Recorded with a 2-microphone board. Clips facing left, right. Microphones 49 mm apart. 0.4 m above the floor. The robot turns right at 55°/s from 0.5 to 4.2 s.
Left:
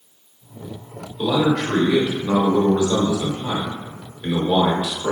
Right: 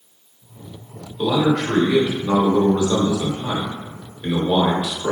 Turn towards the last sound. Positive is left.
turn(degrees=-10)  # may be behind; listen again after turning